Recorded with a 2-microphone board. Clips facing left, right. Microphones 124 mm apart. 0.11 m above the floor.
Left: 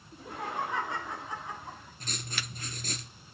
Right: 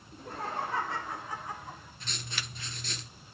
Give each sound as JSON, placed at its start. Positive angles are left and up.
{"t": 0.1, "sound": "laughter", "side_deg": 10, "distance_m": 3.0}
{"t": 2.0, "sound": "writing", "side_deg": 45, "distance_m": 2.5}